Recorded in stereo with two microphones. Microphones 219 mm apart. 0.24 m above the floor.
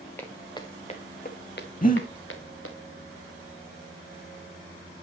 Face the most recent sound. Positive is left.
turn(degrees=40)  # may be behind; listen again after turning